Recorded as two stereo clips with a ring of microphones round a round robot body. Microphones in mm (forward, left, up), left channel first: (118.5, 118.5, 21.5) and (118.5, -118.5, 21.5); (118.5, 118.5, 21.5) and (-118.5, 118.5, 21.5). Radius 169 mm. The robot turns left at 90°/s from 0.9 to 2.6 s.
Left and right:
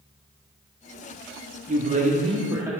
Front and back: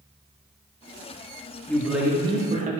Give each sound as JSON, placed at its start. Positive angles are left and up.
{"t": 1.7, "sound": "a man speaking", "azimuth_deg": -75, "distance_m": 1.0}